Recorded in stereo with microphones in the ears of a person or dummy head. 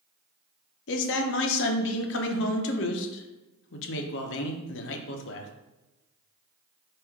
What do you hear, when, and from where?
0.9 s a man speaking: 65° left (ahead or behind), 0.7 m